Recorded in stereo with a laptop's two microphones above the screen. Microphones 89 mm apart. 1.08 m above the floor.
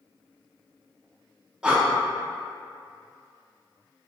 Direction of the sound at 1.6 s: 10° right (ahead or behind).